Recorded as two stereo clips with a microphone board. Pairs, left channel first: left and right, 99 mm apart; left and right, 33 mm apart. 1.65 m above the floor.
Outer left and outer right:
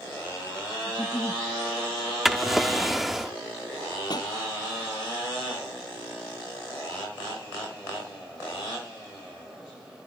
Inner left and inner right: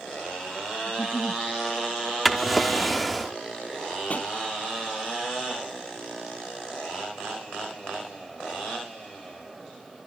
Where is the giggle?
30° left (ahead or behind).